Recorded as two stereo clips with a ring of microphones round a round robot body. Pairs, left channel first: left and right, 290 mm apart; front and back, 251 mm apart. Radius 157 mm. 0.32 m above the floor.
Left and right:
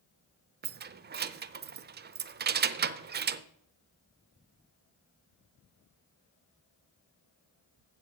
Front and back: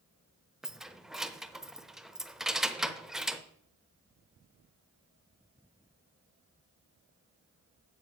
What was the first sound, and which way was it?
Keys jangling, 95° right.